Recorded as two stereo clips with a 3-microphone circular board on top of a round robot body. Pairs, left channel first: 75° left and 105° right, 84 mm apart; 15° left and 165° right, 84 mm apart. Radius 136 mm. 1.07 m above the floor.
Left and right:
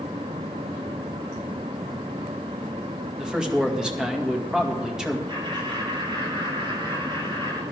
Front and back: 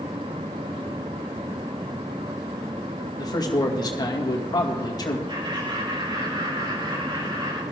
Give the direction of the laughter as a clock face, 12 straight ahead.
4 o'clock.